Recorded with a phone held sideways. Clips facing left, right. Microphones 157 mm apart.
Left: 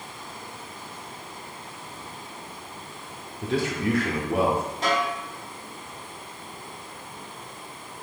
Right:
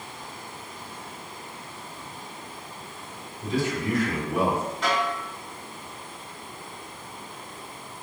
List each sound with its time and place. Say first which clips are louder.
3.4 s a man speaking: left 1 dB; 65° left (ahead or behind), 0.8 m
4.8 s a snare drum: left 1 dB; 40° left (ahead or behind), 1.9 m